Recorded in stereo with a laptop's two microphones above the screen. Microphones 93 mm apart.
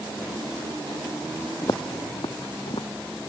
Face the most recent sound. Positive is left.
turn(degrees=70)  # may be behind; listen again after turning